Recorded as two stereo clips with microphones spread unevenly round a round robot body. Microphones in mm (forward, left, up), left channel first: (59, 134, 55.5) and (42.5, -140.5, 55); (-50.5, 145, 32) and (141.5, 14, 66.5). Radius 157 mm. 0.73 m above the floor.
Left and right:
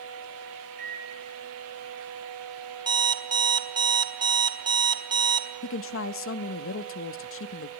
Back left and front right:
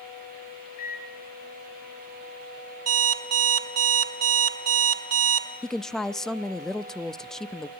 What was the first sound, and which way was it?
A microwave, 155° right.